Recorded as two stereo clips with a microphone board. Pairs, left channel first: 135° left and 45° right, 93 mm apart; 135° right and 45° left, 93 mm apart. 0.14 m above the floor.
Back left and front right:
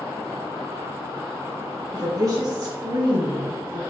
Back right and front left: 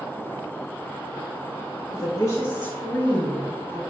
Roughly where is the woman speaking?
Right.